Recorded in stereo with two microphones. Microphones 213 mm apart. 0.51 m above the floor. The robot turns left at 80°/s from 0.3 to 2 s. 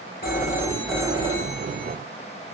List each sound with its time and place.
0.2 s a phone ringing: 45° left, 1.6 m; by 2.0 s 85° right, 1.6 m